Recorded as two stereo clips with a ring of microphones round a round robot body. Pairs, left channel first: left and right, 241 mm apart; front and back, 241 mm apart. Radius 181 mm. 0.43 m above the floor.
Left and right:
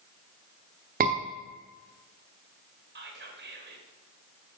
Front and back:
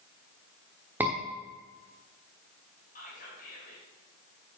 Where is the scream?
100° right, 1.1 m.